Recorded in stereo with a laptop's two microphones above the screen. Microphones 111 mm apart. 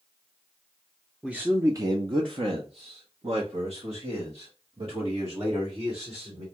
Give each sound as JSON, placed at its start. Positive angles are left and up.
{"t": 1.2, "sound": "a man speaking", "side_deg": -10, "distance_m": 0.6}